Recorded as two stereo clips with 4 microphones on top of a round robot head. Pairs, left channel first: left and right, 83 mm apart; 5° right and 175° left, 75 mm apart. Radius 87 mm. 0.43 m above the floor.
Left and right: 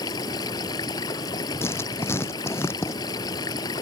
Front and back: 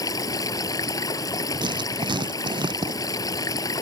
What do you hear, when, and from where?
0.0 s running water: 40° left
1.6 s writing: 155° left